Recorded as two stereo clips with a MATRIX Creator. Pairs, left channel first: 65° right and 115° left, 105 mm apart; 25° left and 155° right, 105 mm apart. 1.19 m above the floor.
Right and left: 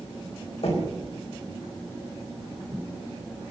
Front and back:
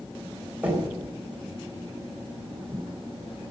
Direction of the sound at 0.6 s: 80° right.